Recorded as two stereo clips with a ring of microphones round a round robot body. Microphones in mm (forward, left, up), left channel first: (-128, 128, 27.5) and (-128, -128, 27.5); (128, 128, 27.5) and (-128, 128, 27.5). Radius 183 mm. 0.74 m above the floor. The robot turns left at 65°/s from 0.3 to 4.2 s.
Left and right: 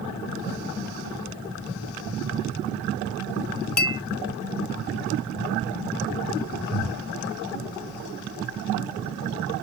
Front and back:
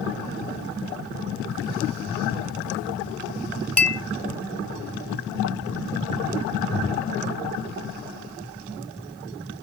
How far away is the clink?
About 1.0 m.